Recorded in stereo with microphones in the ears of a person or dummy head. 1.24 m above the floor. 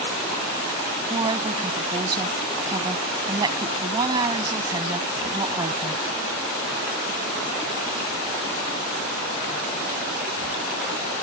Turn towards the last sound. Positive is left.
turn(degrees=-25)  # may be behind; listen again after turning